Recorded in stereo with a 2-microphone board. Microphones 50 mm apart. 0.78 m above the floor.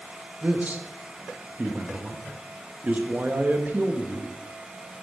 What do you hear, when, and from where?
0.4 s a man speaking: 30° right (ahead or behind), 0.8 m